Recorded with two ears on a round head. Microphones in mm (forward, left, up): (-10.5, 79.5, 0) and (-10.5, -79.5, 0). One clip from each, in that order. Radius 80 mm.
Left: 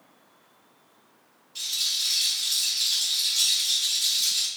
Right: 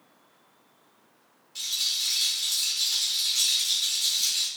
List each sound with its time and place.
1.6 s a rattle: 10° right (ahead or behind), 1.2 m